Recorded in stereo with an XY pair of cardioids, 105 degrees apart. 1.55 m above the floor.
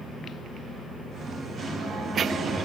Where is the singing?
55° right, 1.9 m.